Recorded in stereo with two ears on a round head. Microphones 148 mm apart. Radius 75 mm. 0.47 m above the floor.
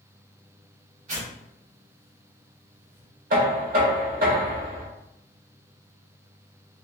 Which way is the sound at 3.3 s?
55° right (ahead or behind).